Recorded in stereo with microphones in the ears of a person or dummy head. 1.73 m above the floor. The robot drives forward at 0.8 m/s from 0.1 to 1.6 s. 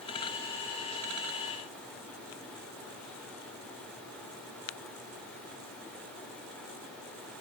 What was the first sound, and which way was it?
Only background noise.